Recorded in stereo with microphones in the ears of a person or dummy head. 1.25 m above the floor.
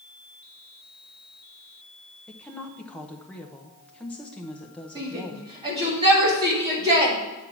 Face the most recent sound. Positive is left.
turn(degrees=-25)  # may be behind; listen again after turning